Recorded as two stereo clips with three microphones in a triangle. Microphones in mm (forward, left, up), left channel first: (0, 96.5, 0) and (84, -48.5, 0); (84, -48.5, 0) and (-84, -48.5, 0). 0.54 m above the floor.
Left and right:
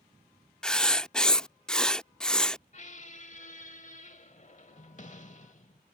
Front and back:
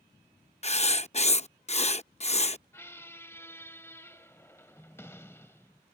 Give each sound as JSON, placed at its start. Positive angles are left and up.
{"t": 0.6, "sound": "writing", "azimuth_deg": 35}
{"t": 2.7, "sound": "a squeak", "azimuth_deg": 75}